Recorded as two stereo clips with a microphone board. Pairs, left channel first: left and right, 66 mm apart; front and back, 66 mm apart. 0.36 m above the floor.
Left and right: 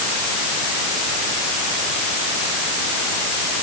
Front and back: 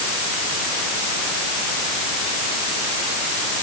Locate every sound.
Only background noise.